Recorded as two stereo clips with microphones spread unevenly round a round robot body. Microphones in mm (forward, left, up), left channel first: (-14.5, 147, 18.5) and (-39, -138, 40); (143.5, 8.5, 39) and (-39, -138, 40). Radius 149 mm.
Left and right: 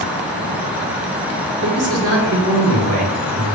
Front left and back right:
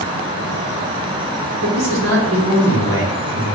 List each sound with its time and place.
1.6 s a man speaking: 130° right, 2.5 m